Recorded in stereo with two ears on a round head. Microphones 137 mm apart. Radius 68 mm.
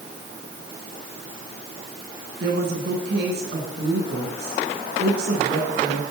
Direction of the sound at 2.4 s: 70° right (ahead or behind).